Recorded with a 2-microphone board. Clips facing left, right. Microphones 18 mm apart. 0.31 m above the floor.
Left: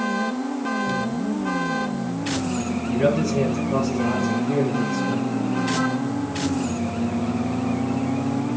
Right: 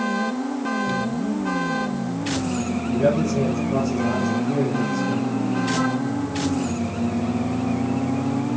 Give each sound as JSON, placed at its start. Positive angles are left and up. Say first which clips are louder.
{"t": 2.9, "sound": "a man speaking", "louder": "even", "side_deg": 80, "distance_m": 4.5}